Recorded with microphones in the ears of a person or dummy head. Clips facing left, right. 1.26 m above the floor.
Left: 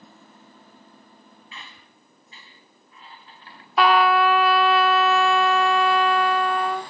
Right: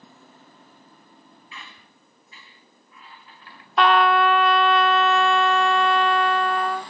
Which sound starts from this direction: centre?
A trumpet, at 3.8 s.